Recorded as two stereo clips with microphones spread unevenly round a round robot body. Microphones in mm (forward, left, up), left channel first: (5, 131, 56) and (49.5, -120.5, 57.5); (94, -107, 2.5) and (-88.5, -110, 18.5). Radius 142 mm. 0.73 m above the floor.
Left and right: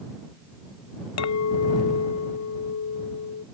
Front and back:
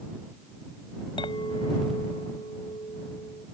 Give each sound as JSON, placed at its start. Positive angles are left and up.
{"t": 1.2, "sound": "a clink", "azimuth_deg": 75}